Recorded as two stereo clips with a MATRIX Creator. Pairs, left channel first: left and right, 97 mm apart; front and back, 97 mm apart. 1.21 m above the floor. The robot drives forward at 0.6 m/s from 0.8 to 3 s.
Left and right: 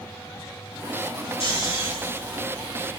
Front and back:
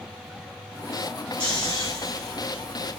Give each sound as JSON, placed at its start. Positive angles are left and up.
{"t": 1.4, "sound": "snoring", "azimuth_deg": 80, "distance_m": 3.0}